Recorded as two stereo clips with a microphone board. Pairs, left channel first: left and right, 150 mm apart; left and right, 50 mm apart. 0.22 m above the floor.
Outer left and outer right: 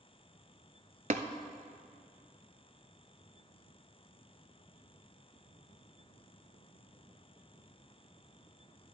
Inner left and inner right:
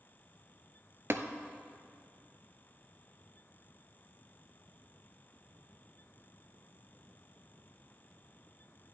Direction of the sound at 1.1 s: 60° right (ahead or behind).